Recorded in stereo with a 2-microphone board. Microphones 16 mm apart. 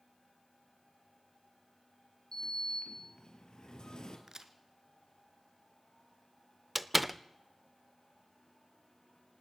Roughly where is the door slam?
Centre.